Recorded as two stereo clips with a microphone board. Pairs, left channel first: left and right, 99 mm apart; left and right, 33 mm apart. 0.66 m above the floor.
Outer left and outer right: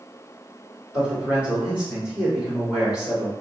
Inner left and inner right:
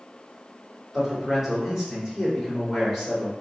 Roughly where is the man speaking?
Centre.